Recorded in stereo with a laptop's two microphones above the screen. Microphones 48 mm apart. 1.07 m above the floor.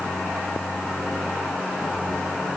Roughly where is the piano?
No piano in this recording.